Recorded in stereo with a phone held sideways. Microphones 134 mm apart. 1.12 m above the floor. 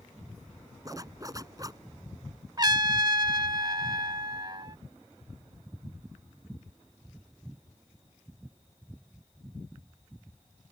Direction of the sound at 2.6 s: 30° right (ahead or behind).